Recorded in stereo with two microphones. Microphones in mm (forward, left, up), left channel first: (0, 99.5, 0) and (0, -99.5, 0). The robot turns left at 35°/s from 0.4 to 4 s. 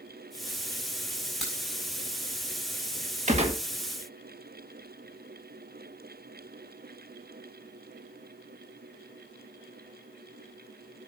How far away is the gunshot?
About 1.8 m.